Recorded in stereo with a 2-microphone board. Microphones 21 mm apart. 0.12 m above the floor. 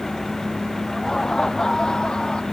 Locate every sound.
0.9 s laughter: 20° left (ahead or behind); by 2.4 s 45° left (ahead or behind)